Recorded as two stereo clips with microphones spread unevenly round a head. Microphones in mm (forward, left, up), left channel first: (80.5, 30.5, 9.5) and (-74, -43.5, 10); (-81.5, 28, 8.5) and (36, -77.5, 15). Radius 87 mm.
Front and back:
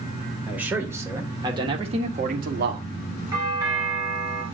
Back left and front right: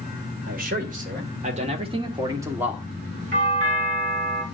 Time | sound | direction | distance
0.5 | a man speaking | 70° right | 2.5 m
3.3 | a doorbell | 80° right | 3.5 m